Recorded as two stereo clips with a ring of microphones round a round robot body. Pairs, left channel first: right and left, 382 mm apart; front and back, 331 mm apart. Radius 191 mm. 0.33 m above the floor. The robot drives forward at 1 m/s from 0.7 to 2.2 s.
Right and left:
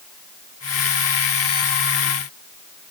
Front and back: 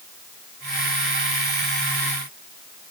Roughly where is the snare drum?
I don't hear a snare drum.